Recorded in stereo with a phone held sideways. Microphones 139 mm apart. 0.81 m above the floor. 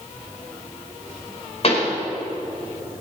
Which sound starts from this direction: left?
A pop, at 1.6 s.